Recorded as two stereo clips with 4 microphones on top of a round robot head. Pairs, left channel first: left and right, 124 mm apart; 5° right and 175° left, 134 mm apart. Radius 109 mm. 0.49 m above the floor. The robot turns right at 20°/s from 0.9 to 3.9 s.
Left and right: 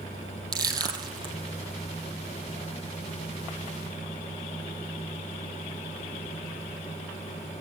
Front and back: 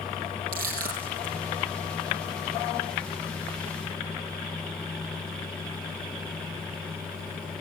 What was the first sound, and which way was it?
Crushing, 150° right.